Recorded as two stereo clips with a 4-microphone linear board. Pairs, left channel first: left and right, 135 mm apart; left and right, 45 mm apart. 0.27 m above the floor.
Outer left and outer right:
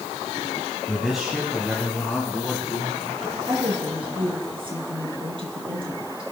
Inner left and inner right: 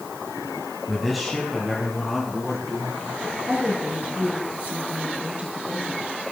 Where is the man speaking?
Centre (ahead or behind), 1.9 m; by 3.4 s 5° left (ahead or behind), 5.5 m.